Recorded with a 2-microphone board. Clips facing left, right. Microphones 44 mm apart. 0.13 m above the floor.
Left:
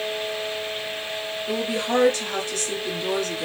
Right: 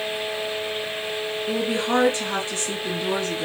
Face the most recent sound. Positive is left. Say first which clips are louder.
# right 1 dB
turn(degrees=-25)  # may be behind; listen again after turning